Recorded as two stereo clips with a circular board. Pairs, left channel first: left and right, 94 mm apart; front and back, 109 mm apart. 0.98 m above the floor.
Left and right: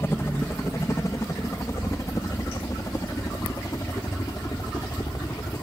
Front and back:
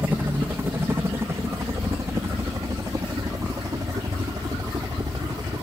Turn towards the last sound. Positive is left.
turn(degrees=135)